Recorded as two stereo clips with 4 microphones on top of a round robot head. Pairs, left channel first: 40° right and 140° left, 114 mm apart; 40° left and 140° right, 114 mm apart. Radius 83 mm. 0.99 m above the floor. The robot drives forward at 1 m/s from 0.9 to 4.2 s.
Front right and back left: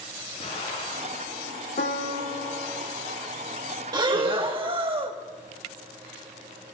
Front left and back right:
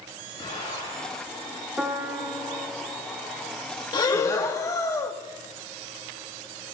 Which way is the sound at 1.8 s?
60° right.